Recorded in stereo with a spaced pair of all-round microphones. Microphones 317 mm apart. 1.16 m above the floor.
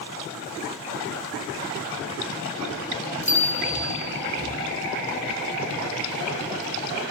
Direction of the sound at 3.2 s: 80° left.